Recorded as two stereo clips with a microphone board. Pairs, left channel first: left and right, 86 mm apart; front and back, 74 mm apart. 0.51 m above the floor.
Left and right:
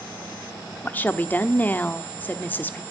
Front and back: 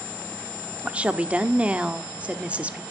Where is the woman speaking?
130° left, 0.8 m.